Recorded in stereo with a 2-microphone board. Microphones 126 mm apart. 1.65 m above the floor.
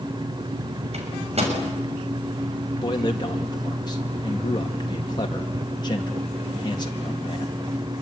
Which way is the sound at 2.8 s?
35° left (ahead or behind).